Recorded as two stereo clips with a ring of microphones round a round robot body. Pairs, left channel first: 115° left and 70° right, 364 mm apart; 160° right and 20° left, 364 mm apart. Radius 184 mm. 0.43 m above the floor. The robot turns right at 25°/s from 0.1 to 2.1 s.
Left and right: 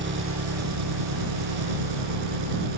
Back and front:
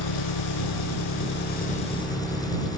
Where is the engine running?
130° right; by 2.8 s 80° right.